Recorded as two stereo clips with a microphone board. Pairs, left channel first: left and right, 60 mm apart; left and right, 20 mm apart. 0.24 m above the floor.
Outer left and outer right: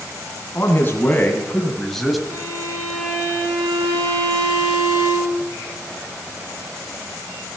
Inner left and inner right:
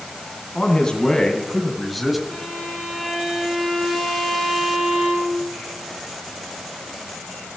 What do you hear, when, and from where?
0.6 s a man speaking: 35° left (ahead or behind), 2.5 m; by 2.2 s centre (ahead or behind), 1.5 m
2.3 s a violin: 80° right, 7 m